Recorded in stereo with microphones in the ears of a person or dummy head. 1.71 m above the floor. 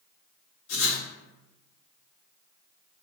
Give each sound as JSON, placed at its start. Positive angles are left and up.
{"t": 0.7, "sound": "writing", "side_deg": 60, "distance_m": 1.6}